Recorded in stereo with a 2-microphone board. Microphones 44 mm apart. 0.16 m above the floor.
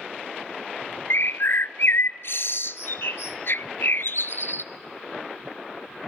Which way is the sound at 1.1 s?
70° left (ahead or behind).